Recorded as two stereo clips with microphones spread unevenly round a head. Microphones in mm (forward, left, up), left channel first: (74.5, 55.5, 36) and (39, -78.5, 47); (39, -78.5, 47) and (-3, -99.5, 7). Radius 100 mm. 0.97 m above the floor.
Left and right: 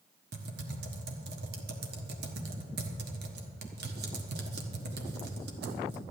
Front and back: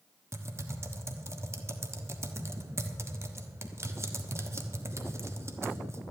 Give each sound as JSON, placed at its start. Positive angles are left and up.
{"t": 0.3, "sound": "typing on a keyboard", "azimuth_deg": -125, "distance_m": 1.2}